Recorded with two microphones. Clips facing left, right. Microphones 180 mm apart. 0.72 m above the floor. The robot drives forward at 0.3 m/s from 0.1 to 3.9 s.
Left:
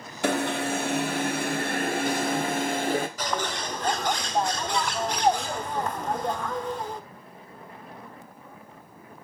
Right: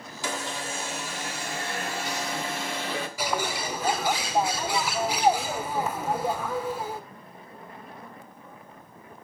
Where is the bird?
10° right (ahead or behind), 0.6 m; by 7.0 s 5° right (ahead or behind), 0.8 m.